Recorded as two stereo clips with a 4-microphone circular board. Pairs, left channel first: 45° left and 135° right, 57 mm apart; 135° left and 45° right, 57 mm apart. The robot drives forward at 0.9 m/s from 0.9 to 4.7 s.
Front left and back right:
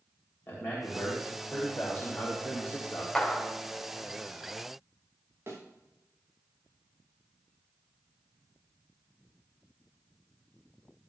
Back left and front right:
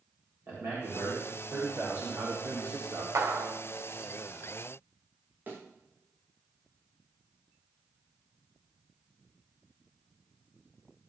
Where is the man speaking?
5° right, 3.5 m; by 3.0 s 15° right, 1.8 m.